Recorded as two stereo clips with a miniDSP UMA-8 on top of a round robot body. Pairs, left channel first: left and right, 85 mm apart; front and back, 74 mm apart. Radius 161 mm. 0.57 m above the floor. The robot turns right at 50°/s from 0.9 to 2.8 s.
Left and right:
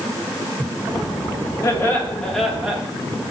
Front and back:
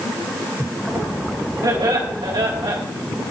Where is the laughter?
140° left, 4 m; by 2.8 s 160° right, 4 m.